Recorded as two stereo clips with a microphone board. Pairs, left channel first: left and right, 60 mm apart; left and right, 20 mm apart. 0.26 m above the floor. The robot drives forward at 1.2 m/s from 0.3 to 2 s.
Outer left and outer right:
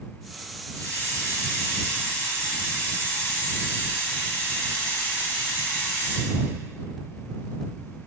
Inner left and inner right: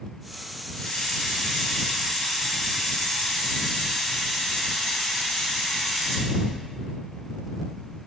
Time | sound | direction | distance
0.7 | a hiss | 30° left (ahead or behind) | 3 m